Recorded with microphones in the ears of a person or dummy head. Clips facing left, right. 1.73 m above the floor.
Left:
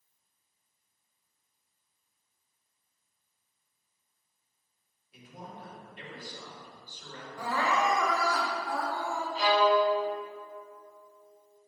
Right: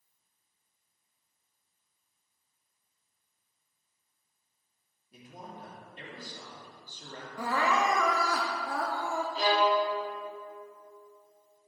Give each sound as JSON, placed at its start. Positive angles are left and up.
{"t": 5.1, "sound": "a man speaking", "side_deg": -40, "distance_m": 3.0}
{"t": 7.4, "sound": "crying", "side_deg": -50, "distance_m": 0.8}
{"t": 9.3, "sound": "a violin", "side_deg": -35, "distance_m": 2.5}